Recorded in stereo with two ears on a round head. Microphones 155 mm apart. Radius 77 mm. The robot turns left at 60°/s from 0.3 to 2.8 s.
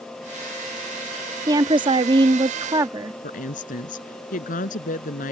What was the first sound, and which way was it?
A woman speaking, 25° right (ahead or behind).